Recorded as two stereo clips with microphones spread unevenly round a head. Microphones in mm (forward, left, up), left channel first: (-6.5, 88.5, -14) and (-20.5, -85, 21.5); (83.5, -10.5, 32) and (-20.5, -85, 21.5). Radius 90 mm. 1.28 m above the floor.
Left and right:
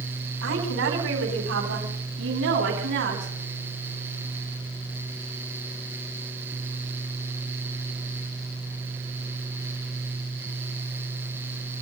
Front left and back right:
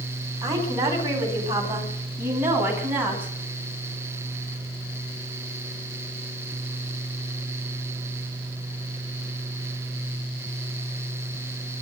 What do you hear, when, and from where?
0.4 s a woman speaking: 80° right, 9 m; by 3.3 s 70° right, 11 m